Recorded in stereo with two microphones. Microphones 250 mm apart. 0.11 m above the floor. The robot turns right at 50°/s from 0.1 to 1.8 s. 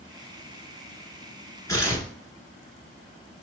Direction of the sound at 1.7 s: 15° left (ahead or behind).